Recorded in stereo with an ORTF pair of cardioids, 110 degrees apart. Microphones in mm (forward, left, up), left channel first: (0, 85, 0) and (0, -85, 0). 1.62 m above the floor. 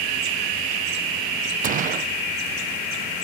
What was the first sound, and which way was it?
A gunshot, 50° right.